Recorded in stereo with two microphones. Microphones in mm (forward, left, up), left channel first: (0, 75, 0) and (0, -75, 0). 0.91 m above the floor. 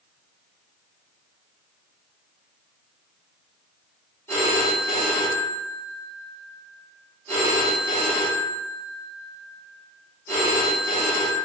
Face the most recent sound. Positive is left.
turn(degrees=15)  # may be behind; listen again after turning